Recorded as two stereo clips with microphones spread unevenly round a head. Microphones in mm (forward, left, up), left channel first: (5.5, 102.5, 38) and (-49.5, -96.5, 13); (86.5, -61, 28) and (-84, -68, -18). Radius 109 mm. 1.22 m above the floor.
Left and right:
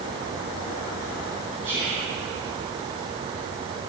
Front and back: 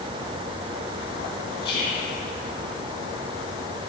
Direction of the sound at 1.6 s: 25° right.